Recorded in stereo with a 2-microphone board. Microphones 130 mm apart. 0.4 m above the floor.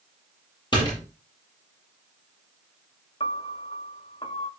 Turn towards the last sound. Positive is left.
turn(degrees=45)  # may be behind; listen again after turning